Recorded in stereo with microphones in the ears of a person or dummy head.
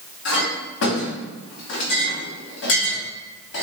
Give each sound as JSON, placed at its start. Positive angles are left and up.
{"t": 0.2, "sound": "a clink", "side_deg": 60, "distance_m": 1.5}